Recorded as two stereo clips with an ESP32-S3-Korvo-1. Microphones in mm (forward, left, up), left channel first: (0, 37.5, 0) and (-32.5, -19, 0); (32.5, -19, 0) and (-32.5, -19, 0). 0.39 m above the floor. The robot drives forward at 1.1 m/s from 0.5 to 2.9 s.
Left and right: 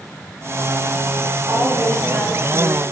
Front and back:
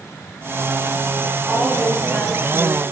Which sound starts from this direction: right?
A woman speaking, at 1.4 s.